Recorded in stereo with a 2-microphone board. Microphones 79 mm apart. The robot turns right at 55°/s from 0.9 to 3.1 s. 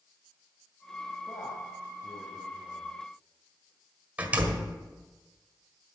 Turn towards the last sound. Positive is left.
turn(degrees=-20)  # may be behind; listen again after turning